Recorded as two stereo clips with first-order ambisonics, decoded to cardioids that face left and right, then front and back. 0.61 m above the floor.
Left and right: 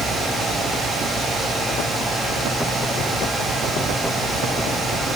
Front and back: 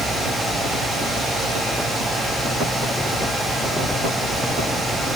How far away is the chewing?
I don't hear chewing.